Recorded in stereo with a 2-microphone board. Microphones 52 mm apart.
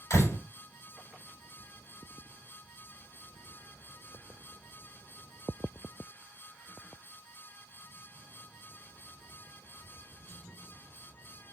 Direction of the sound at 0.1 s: 75° left (ahead or behind).